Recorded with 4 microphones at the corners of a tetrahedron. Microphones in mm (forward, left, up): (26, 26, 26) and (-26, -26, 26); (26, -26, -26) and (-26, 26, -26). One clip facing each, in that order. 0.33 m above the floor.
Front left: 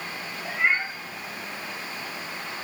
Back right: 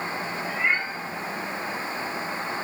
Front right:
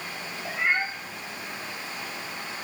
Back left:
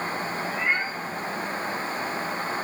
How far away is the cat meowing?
About 2.5 m.